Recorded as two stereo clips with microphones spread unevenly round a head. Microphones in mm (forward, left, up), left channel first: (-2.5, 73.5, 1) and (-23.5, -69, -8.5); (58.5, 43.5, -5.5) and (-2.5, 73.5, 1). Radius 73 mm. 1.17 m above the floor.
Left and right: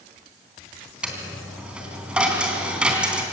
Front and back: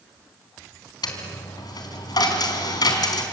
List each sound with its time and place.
1.0 s a dropped coin: 15° right, 3.5 m